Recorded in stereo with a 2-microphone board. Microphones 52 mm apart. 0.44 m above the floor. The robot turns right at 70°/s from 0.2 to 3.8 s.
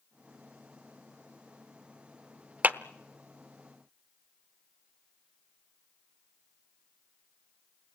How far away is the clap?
About 0.8 m.